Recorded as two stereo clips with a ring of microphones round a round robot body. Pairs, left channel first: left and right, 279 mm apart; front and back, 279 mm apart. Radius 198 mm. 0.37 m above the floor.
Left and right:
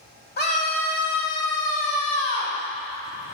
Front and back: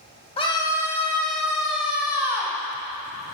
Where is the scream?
60° left, 1.4 m; by 2.6 s 100° left, 3 m.